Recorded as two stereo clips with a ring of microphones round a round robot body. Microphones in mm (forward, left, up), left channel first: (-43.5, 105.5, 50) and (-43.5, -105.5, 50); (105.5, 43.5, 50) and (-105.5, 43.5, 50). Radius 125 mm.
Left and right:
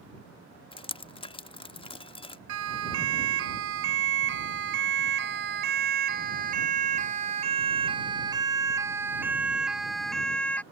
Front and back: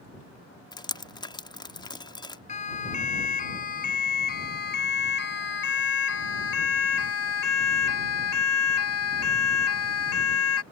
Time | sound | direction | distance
0.7 | dripping | 50° left | ?
2.5 | a siren | 60° right | ?